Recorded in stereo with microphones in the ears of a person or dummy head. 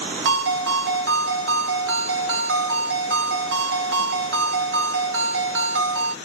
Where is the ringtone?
70° right (ahead or behind), 0.8 m.